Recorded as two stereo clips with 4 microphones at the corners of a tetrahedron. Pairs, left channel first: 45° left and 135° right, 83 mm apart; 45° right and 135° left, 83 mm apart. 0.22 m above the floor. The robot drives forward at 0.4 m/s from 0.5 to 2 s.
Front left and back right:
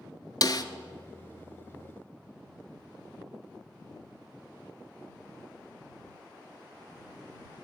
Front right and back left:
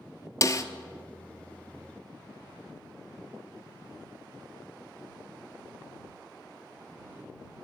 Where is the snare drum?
10° left, 0.7 m.